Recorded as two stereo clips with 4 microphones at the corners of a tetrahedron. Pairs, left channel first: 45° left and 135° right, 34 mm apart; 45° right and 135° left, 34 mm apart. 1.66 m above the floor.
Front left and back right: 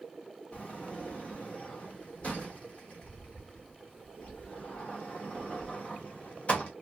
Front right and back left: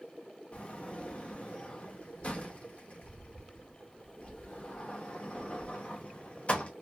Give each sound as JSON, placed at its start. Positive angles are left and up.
{"t": 0.5, "sound": "a sliding door", "azimuth_deg": 0, "distance_m": 0.8}